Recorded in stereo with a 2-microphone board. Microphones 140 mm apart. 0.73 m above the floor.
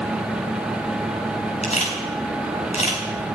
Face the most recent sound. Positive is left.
turn(degrees=50)  # may be behind; listen again after turning